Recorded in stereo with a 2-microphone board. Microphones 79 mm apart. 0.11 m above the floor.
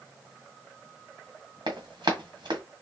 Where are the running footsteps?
70° right (ahead or behind), 1.3 m.